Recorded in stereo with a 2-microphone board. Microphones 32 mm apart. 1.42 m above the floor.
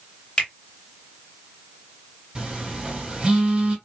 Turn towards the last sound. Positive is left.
turn(degrees=-35)  # may be behind; listen again after turning